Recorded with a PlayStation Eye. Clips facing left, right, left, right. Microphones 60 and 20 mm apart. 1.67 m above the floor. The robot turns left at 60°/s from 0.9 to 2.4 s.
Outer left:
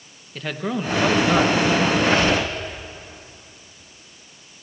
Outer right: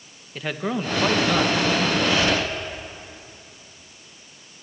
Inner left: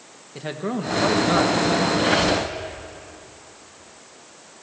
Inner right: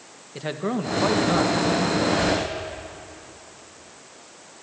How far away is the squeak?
About 4 m.